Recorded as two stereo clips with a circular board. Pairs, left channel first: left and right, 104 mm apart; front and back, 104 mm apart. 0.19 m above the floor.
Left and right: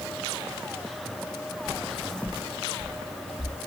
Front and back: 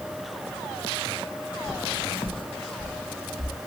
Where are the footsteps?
35° right, 0.9 m; by 3.5 s 90° left, 1.7 m.